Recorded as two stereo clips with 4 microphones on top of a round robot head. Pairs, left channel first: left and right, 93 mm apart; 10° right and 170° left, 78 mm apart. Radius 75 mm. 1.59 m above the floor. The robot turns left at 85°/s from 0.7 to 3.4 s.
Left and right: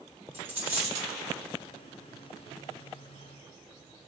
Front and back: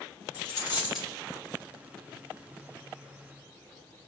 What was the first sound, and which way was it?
A dropped coin, 25° right.